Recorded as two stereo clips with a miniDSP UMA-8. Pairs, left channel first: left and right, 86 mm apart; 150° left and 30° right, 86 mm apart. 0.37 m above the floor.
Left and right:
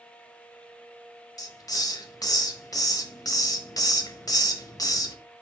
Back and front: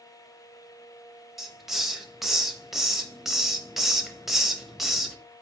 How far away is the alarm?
I don't hear an alarm.